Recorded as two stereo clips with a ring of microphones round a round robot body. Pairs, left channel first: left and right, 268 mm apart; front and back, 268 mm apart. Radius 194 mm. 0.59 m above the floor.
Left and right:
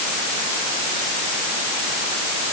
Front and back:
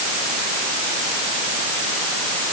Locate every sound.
Only background noise.